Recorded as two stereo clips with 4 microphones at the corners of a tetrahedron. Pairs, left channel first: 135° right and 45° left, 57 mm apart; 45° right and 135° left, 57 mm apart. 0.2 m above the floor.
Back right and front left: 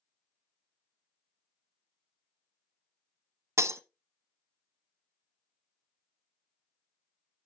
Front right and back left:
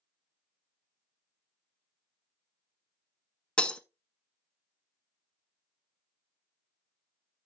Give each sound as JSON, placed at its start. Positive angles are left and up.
{"t": 3.6, "sound": "breaking glass", "azimuth_deg": 25, "distance_m": 0.9}